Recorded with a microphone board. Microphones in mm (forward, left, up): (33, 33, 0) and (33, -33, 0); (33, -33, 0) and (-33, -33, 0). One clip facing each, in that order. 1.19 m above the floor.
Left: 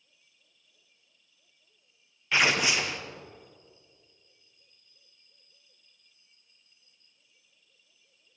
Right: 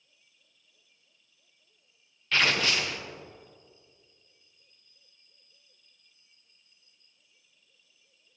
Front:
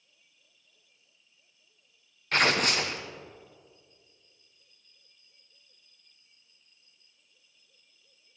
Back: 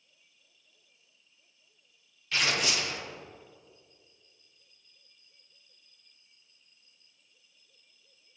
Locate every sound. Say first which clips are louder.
2.3 s tearing paper: left 1 dB, front 5 dB; 15° left, 0.8 m